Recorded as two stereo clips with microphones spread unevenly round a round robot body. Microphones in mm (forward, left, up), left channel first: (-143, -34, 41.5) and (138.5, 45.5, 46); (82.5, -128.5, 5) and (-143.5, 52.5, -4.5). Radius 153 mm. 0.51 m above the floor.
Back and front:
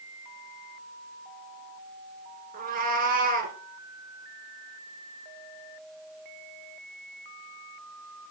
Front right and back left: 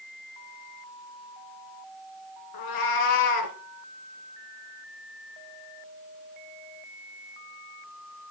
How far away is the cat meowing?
About 1.8 m.